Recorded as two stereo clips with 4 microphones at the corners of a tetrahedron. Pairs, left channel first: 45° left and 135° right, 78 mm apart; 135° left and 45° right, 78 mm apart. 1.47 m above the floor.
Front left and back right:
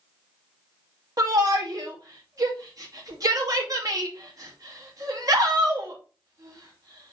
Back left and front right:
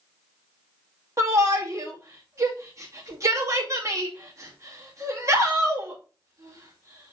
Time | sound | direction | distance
1.2 | a shout | 95° right | 2.5 m